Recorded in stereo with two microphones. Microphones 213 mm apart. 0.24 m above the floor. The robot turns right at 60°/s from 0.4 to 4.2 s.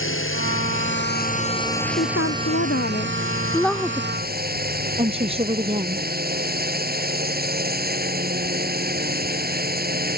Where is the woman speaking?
70° left; by 6.0 s 155° right.